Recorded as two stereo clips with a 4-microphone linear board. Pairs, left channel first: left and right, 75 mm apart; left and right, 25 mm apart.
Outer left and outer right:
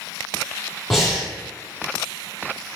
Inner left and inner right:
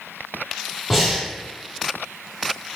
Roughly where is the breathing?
Centre.